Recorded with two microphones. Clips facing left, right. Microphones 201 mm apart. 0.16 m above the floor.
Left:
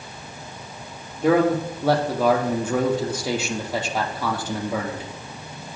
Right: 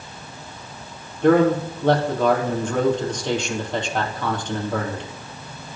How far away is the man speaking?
About 4 m.